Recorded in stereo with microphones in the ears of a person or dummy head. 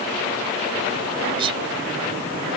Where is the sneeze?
30° right (ahead or behind).